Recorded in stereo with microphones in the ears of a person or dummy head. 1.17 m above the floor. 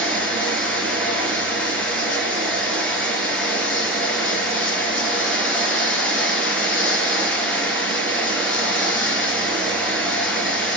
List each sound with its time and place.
0.0 s running water: 10° left (ahead or behind), 3 m